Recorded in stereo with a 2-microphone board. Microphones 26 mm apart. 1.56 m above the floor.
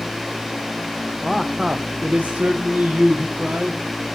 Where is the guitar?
No guitar in this recording.